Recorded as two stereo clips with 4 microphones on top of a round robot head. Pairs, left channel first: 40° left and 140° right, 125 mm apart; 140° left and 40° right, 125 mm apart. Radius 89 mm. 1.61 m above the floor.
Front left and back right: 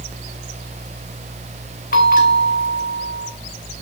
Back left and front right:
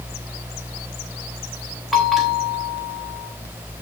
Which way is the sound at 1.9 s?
45° left.